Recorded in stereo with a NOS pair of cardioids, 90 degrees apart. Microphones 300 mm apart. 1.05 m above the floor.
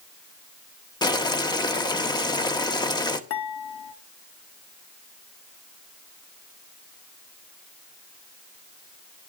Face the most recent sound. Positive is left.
turn(degrees=50)